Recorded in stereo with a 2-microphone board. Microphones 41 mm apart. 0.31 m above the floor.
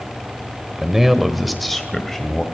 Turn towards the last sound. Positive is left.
turn(degrees=10)  # may be behind; listen again after turning